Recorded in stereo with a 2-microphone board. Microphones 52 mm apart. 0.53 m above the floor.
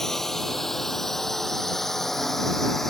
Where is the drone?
5° left (ahead or behind).